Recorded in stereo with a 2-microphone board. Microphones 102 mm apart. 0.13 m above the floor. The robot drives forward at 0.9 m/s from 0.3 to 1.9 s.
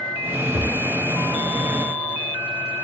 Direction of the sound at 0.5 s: 50° left (ahead or behind).